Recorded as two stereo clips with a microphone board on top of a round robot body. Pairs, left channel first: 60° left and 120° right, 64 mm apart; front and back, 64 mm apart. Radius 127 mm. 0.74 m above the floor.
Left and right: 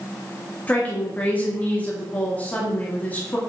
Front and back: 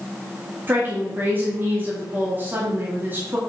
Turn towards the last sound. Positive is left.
turn(degrees=125)